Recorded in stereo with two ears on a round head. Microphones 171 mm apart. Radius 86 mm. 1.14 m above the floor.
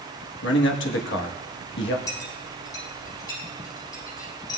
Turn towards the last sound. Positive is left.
turn(degrees=20)  # may be behind; listen again after turning